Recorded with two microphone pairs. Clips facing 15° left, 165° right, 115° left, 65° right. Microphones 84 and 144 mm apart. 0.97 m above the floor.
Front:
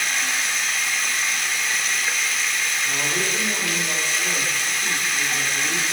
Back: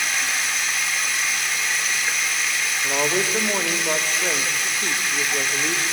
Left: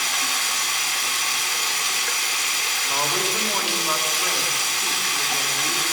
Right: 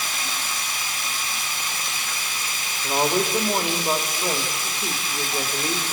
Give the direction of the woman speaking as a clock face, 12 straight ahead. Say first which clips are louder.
Back 7 dB, right 5 dB; 4 o'clock.